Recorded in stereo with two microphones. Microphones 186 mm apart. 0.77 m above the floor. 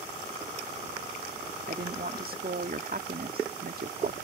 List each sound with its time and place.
1.7 s a woman speaking: 55° right (ahead or behind)